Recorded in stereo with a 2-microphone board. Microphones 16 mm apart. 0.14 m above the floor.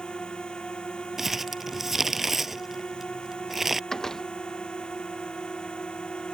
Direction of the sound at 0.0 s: 75° left (ahead or behind).